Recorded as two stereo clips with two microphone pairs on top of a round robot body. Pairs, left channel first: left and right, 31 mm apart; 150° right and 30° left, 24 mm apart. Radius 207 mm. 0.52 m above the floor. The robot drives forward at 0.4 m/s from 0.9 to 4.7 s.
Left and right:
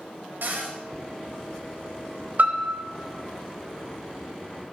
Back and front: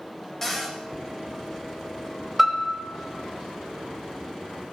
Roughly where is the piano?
Ahead right.